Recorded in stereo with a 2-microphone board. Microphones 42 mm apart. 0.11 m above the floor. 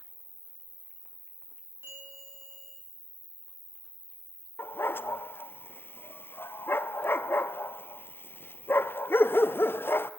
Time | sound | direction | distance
0.0 | an insect | 75° right (ahead or behind) | 0.8 m
1.8 | a bell | 70° right (ahead or behind) | 10 m
4.6 | a dog barking | 60° left (ahead or behind) | 0.7 m